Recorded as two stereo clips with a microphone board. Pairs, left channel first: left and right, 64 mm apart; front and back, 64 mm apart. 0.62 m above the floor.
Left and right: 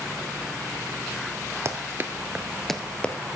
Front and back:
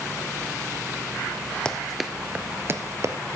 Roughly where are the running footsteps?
Right.